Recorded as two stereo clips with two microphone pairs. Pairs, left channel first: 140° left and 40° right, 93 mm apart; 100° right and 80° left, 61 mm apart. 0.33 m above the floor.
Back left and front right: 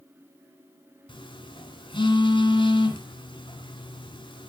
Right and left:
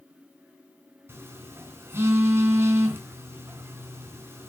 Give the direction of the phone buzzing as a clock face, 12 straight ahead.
8 o'clock.